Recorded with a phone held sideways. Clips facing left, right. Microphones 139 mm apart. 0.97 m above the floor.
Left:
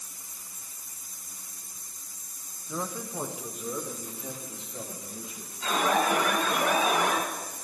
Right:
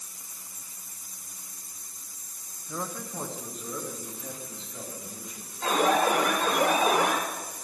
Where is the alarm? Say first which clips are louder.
Right 2 dB; 65° right (ahead or behind), 2.5 m.